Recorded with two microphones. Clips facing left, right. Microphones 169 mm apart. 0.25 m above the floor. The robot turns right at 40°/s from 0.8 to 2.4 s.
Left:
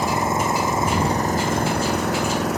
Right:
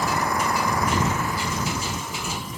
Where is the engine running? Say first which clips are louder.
Left 3 dB; 25° left; by 2.6 s 90° left.